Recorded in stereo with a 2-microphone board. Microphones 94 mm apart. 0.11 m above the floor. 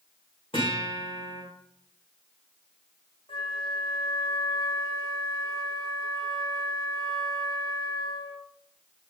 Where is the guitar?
75° left (ahead or behind), 7.5 m.